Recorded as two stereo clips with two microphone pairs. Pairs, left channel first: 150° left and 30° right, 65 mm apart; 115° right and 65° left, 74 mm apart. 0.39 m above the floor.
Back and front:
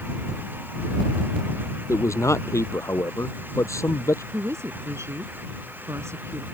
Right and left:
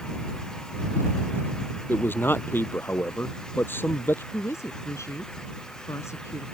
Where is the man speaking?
175° right.